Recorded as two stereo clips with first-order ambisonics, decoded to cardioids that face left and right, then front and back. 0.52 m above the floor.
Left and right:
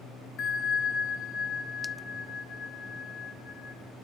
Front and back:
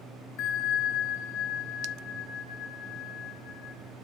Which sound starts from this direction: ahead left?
A bell, at 0.4 s.